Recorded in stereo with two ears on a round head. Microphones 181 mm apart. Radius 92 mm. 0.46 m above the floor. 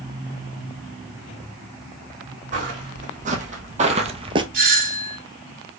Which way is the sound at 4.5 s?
40° right (ahead or behind).